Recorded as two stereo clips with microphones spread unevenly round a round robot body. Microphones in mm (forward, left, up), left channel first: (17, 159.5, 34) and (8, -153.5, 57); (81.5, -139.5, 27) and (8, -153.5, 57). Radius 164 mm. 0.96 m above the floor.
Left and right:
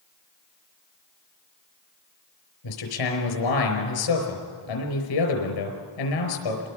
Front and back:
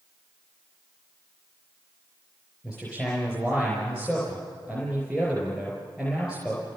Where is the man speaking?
105° left, 4.5 m.